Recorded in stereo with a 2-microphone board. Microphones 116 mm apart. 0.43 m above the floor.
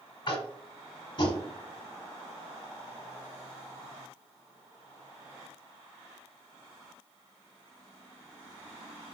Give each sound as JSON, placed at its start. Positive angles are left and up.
{"t": 0.3, "sound": "tapping", "side_deg": 45, "distance_m": 1.0}